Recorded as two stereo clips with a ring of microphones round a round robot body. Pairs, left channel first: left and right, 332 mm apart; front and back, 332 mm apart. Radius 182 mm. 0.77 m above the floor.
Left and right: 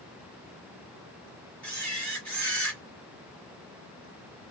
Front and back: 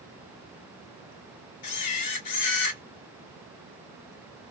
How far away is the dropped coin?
No dropped coin in this recording.